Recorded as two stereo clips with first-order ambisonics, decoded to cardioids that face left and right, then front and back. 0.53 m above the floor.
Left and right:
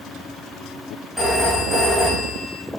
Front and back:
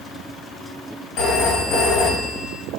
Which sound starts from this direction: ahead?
A phone ringing, at 1.2 s.